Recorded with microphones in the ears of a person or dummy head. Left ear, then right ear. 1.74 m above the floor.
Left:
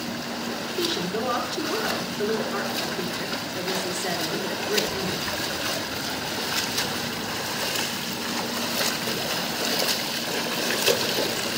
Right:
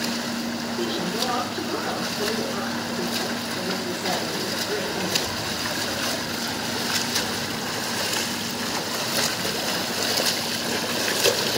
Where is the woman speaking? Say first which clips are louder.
Even; 90° left, 6.5 m.